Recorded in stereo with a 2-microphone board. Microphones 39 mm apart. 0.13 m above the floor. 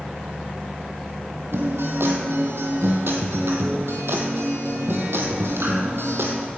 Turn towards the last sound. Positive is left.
turn(degrees=-75)  # may be behind; listen again after turning